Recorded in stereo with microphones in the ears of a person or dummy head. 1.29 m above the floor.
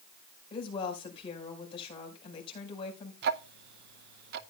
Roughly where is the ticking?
Right.